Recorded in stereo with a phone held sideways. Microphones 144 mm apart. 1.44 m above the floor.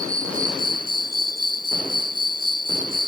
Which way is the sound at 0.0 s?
65° right (ahead or behind).